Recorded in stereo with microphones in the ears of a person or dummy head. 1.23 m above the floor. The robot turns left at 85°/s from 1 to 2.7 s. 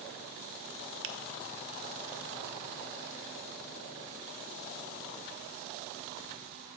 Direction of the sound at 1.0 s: 60° right (ahead or behind).